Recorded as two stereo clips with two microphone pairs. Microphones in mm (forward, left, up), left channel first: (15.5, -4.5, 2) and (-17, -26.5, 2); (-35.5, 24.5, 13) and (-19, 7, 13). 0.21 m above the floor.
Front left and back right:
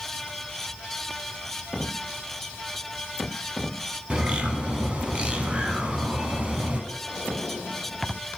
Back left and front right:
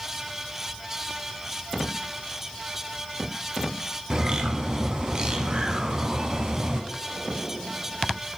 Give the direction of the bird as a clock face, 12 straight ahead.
3 o'clock.